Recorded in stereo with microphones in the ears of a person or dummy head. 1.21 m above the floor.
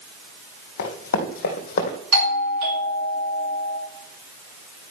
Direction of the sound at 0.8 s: 50° left (ahead or behind).